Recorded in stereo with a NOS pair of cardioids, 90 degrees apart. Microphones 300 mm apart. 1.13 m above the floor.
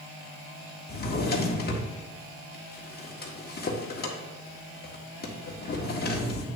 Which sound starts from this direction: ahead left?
A drawer, at 0.9 s.